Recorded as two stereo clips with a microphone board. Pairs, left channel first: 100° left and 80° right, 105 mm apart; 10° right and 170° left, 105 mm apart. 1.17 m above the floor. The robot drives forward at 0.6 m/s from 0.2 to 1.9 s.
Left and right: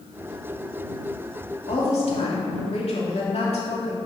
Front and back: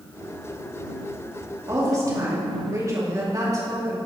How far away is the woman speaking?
About 2.5 m.